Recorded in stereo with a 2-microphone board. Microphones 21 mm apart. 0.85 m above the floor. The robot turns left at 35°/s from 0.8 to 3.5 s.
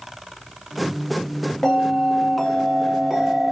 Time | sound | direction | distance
1.6 | a bell | 30° left | 0.8 m